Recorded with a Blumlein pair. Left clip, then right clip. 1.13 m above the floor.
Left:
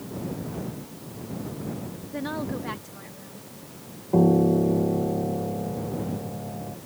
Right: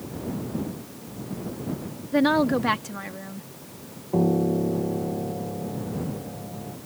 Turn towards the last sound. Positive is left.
turn(degrees=10)